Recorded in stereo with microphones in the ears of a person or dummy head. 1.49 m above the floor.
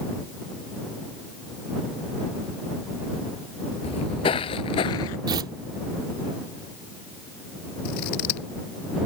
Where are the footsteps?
20° left (ahead or behind); by 5.2 s 10° left (ahead or behind).